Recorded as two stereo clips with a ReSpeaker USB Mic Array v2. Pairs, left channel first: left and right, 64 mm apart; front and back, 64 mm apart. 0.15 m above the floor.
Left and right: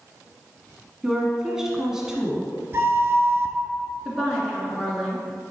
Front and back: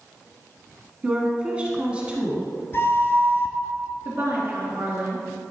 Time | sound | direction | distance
1.0 | a woman speaking | 155° right | 1.2 m
2.7 | a flute | 45° right | 0.5 m
4.0 | a woman speaking | 175° left | 2 m